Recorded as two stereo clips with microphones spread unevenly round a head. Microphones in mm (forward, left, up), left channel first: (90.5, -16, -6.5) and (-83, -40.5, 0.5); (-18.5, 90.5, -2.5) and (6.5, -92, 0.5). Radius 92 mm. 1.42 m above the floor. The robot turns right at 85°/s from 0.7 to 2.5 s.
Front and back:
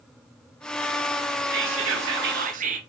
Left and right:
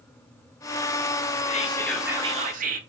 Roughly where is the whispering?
Behind left.